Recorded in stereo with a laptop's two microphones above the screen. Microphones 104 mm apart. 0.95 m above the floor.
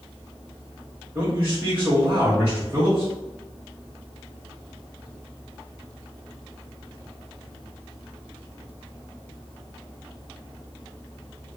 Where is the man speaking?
25° right (ahead or behind), 1.6 m.